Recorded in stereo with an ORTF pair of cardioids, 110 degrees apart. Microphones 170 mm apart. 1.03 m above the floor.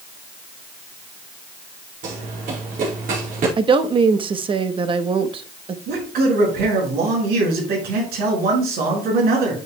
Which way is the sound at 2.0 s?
60° right.